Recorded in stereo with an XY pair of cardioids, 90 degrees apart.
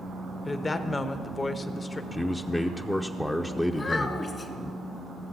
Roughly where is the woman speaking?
Ahead left.